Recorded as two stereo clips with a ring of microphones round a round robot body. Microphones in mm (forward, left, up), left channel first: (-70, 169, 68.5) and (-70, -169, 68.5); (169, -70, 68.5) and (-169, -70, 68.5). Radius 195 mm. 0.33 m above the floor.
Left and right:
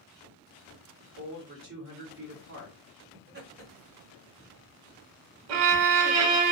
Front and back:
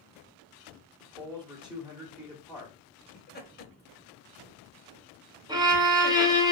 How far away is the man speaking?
About 1.2 m.